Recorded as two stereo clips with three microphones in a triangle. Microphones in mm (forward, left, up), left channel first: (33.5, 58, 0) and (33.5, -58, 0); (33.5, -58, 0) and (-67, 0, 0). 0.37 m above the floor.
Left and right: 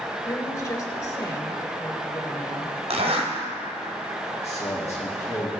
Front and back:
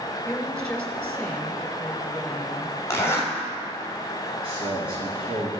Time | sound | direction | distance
0.2 | a woman speaking | 50° left | 1.8 m
2.9 | a zipper | 95° right | 1.8 m
4.4 | a man speaking | 110° left | 3.5 m